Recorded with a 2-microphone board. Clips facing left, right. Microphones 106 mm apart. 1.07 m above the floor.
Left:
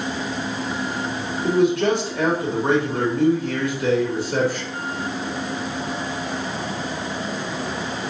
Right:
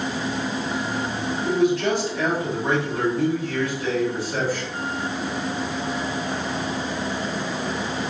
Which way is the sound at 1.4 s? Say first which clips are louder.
Left 3 dB; 70° left (ahead or behind).